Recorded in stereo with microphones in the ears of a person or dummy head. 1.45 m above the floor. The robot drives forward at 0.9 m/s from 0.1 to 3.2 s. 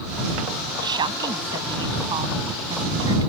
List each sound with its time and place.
0.8 s a woman speaking: 25° right (ahead or behind)